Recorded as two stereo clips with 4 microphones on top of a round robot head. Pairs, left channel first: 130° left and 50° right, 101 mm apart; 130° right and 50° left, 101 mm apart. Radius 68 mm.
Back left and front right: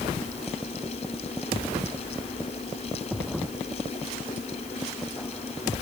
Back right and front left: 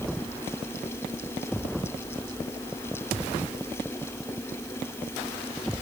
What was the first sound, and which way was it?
Only background noise.